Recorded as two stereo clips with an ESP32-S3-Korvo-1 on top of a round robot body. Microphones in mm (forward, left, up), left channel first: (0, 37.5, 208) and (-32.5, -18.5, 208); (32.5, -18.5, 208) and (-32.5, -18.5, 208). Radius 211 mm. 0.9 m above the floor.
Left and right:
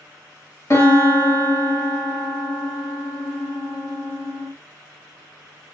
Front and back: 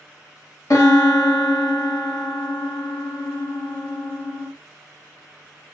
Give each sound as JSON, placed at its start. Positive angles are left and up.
{"t": 0.7, "sound": "a piano", "azimuth_deg": 25, "distance_m": 1.5}